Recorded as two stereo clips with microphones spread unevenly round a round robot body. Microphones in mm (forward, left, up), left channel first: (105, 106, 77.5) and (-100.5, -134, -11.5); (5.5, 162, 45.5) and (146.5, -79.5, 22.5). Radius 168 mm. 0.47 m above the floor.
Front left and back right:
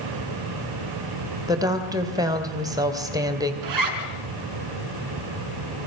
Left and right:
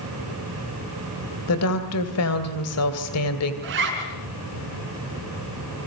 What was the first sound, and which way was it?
A woman speaking, 160° left.